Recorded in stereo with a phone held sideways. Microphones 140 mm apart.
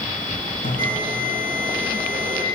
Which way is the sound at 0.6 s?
80° left.